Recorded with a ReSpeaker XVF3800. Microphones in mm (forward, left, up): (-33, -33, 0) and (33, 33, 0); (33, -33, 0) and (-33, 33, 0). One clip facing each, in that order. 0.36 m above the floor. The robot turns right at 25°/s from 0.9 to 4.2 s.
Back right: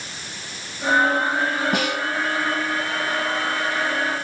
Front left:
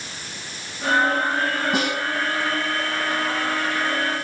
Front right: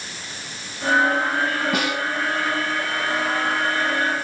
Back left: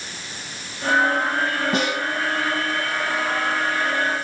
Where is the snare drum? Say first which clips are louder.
Even, back left 1 dB; 165° right, 2.5 m; by 2.0 s 155° right, 2.5 m.